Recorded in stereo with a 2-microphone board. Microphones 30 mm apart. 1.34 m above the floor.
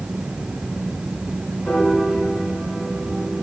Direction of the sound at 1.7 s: 25° left (ahead or behind).